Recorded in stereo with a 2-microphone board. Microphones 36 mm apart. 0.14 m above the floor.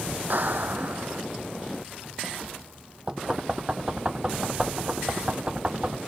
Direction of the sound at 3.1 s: 25° right (ahead or behind).